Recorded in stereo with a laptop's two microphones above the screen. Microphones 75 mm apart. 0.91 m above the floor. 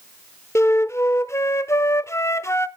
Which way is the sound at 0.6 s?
40° left (ahead or behind).